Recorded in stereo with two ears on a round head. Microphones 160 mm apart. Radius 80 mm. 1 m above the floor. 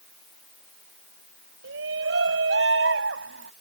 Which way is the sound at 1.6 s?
75° right (ahead or behind).